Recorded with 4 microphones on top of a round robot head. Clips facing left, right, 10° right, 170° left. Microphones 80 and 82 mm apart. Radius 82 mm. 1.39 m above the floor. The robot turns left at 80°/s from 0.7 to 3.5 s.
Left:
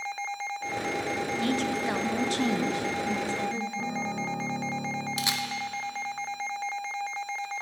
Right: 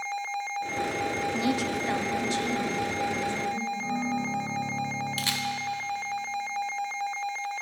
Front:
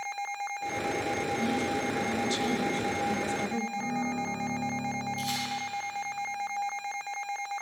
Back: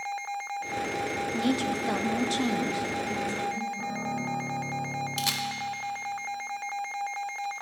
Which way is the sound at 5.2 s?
160° left.